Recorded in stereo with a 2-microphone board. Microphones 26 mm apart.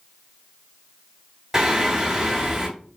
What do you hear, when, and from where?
1.5 s singing: 20° right (ahead or behind), 1.7 m